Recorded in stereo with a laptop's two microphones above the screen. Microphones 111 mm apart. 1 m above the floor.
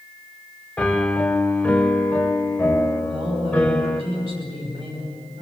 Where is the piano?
10° left (ahead or behind), 2 m.